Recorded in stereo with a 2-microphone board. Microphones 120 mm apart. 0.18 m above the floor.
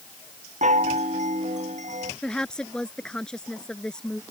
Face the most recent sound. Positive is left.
turn(degrees=5)  # may be behind; listen again after turning